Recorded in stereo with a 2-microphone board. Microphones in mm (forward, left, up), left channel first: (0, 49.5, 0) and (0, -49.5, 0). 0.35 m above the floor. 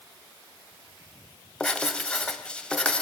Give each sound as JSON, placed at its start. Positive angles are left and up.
{"t": 1.6, "sound": "writing", "side_deg": 10, "distance_m": 1.9}